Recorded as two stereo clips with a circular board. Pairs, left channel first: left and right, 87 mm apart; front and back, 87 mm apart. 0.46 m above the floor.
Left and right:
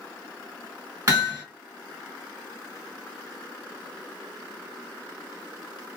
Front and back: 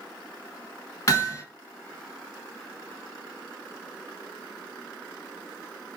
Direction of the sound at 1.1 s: 45° right.